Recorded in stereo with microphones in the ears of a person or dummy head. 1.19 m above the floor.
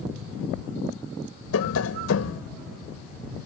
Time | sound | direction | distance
1.5 | tapping | 80° left | ?